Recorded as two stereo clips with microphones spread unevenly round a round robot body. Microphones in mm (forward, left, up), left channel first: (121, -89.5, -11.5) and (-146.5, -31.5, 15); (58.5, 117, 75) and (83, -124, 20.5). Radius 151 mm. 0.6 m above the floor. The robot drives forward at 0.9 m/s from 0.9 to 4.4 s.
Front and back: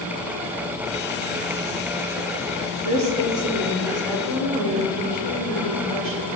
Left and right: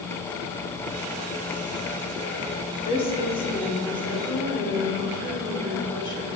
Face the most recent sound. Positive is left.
turn(degrees=175)